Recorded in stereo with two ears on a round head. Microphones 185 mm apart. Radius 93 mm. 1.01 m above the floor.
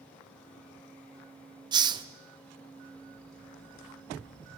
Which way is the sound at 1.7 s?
20° right (ahead or behind).